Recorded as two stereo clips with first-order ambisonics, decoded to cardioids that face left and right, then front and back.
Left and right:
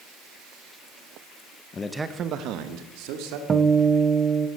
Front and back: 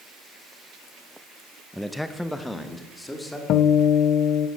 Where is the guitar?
30° right, 0.9 m.